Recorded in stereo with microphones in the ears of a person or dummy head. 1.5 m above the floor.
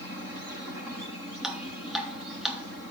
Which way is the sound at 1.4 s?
Centre (ahead or behind).